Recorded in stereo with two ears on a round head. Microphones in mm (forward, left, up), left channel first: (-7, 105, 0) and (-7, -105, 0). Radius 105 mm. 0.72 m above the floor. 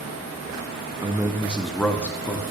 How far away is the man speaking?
About 0.6 m.